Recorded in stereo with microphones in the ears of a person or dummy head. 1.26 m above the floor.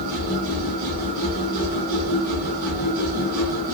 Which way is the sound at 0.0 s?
35° right (ahead or behind).